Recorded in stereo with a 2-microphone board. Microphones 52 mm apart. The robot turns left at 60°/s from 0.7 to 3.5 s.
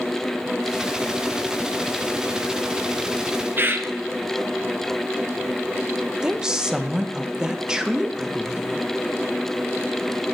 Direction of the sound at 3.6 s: 40° right (ahead or behind).